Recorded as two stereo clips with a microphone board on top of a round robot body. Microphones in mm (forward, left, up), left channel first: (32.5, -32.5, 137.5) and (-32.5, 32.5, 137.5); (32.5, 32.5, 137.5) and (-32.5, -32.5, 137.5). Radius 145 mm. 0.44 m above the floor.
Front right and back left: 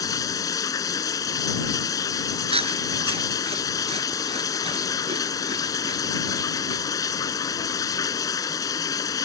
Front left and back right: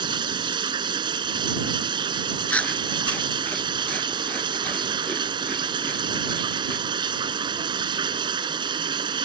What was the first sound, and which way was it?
Running water, 95° right.